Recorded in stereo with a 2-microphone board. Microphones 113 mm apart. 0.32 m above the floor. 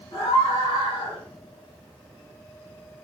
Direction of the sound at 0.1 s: 50° left (ahead or behind).